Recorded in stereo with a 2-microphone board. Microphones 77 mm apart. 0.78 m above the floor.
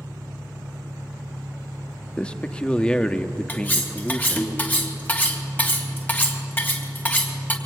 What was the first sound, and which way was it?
An engine running, 50° right (ahead or behind).